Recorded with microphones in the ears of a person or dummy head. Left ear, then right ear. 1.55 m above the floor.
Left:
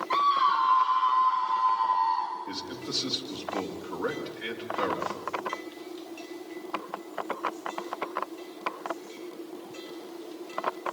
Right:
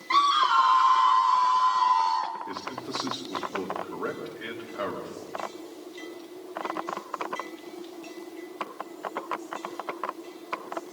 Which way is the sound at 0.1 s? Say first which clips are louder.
Right 3 dB; 85° right.